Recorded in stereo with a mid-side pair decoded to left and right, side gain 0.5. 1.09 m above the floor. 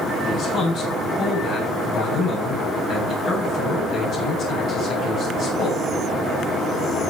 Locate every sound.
0.2 s a man speaking: 65° left, 7.5 m